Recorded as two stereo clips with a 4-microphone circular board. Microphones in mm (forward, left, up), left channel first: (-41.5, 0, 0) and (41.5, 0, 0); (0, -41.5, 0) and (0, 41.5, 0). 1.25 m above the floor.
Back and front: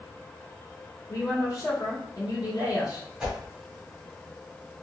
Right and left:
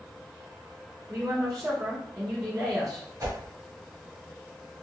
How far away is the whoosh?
About 1.2 m.